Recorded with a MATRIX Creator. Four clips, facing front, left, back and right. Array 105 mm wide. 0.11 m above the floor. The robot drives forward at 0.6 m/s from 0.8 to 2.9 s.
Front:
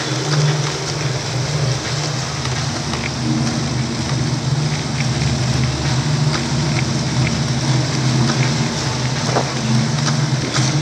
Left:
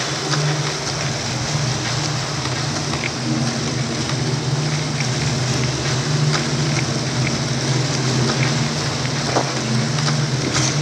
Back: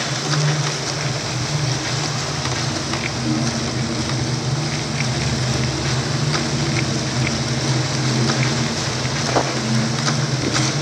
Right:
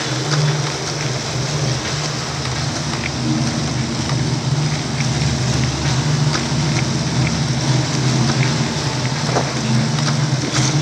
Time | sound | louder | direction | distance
0.0 | running water | right 2 dB, front 3 dB | 45° right | 3.5 m